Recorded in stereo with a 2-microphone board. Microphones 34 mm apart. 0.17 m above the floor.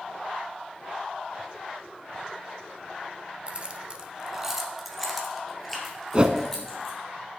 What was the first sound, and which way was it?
Keys jangling, 35° right (ahead or behind).